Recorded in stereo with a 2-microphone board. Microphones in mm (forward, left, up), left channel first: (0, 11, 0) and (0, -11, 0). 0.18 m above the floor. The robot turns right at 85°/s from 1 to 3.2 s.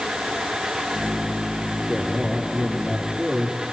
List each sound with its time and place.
1.8 s a man speaking: 150° right, 4.5 m; by 3.6 s 30° right, 4.5 m